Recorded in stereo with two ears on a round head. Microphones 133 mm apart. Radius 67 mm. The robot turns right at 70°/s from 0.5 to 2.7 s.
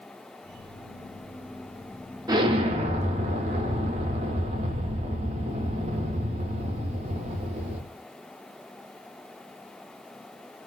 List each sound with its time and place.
2.3 s an explosion: 25° right (ahead or behind), 0.5 m; by 7.8 s 45° right (ahead or behind), 0.5 m